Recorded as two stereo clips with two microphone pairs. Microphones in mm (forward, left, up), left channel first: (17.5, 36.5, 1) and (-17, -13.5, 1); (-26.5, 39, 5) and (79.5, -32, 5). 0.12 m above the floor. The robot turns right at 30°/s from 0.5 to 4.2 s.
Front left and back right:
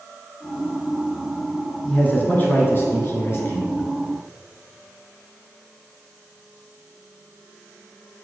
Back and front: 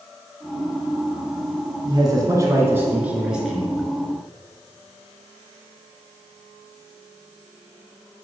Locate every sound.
1.8 s a man speaking: straight ahead, 2.0 m; by 3.9 s 60° left, 2.0 m